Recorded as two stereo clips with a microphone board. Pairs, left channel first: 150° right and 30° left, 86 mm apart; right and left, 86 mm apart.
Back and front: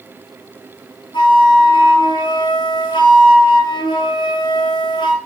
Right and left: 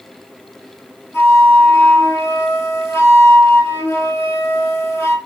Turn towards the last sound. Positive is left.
turn(degrees=-150)